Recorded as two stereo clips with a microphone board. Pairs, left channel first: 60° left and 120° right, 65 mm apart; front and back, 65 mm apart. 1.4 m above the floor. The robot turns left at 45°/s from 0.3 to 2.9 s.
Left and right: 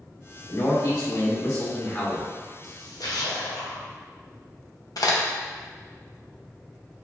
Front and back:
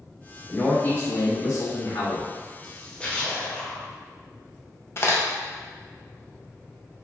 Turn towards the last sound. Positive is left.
turn(degrees=45)